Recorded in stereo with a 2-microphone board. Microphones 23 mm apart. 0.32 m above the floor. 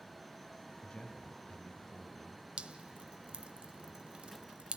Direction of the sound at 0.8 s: 30° left (ahead or behind).